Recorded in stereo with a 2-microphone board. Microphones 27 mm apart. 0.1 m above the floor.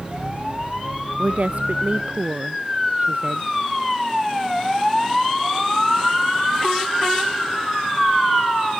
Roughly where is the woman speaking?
Right.